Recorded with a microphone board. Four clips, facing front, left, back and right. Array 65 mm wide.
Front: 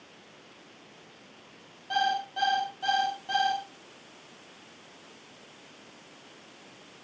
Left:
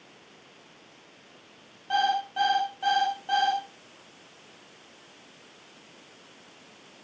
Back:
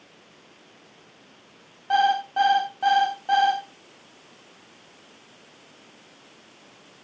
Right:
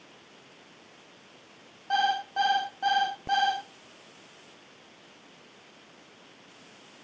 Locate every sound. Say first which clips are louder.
1.9 s an alarm clock: left 1 dB, back 7 dB; 165° right, 6.5 m